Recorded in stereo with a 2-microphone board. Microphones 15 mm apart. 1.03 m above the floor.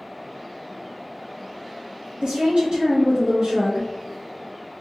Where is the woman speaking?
65° right (ahead or behind), 0.8 m.